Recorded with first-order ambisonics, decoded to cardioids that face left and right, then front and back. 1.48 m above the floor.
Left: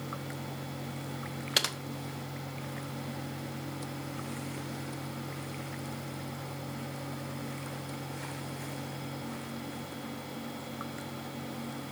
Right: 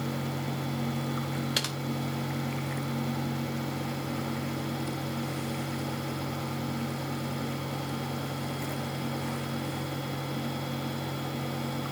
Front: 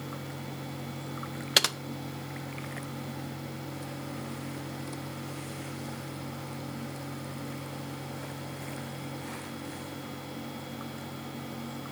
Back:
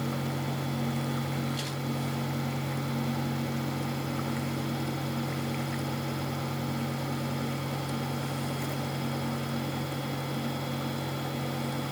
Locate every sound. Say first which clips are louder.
1.6 s typing on a keyboard: left 3 dB, front 12 dB; 10° left, 1.1 m